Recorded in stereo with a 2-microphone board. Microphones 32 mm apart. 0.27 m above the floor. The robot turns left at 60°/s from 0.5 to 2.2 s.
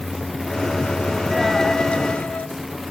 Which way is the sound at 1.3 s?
Straight behind.